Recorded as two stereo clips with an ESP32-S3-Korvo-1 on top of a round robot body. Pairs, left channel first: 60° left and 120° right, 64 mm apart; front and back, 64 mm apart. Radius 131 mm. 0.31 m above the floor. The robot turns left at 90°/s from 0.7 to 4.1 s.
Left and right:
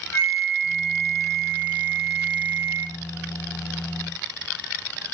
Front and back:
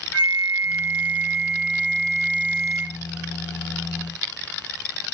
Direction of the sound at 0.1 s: 90° left.